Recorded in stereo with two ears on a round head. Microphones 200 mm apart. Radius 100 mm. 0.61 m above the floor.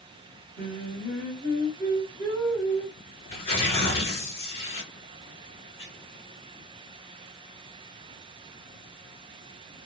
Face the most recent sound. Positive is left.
turn(degrees=25)  # may be behind; listen again after turning